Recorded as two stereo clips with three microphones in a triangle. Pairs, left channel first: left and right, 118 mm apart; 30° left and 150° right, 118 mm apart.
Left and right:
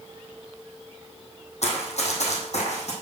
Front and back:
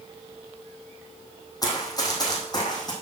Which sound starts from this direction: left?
Running footsteps, at 1.6 s.